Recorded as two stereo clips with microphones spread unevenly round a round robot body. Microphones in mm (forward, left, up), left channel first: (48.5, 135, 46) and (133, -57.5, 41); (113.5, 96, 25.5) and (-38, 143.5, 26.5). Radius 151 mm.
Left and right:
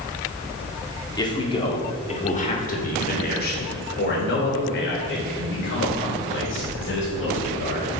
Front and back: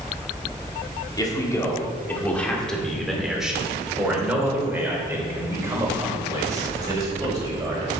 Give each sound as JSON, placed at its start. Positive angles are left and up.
{"t": 1.2, "sound": "a man speaking", "azimuth_deg": 45, "distance_m": 2.0}